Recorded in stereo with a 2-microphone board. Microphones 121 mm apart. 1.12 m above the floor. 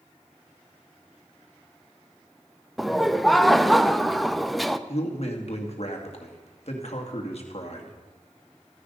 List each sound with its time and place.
2.8 s laughter: centre (ahead or behind), 0.6 m
4.9 s a man speaking: 55° left (ahead or behind), 2 m